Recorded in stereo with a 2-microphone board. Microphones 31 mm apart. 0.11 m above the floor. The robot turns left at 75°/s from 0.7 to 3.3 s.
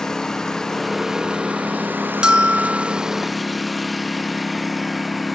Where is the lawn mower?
15° left; by 5.3 s straight behind.